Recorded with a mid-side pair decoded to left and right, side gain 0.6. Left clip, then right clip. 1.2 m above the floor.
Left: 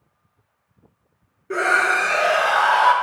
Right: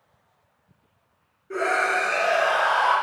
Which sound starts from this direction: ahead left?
A scream, at 1.5 s.